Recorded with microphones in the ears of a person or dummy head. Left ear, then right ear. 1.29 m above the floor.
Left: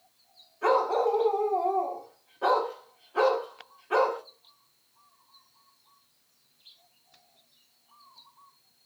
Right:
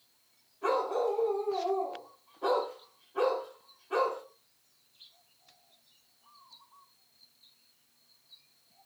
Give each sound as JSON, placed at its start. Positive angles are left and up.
{"t": 0.6, "sound": "a dog barking", "side_deg": 45, "distance_m": 1.1}